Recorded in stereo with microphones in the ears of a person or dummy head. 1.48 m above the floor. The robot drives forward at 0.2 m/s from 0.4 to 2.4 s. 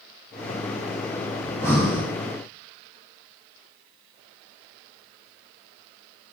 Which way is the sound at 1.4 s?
10° left (ahead or behind).